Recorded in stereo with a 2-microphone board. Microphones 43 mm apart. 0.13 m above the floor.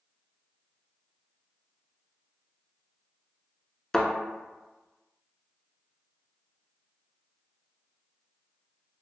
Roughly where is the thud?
Centre.